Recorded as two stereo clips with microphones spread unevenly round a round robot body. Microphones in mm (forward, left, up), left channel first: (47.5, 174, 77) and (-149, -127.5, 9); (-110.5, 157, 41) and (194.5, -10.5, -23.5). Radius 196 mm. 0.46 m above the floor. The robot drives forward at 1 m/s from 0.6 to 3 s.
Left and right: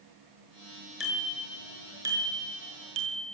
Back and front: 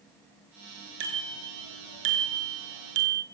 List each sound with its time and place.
1.0 s a bicycle bell: 35° right, 5.5 m; by 3.2 s 50° right, 4 m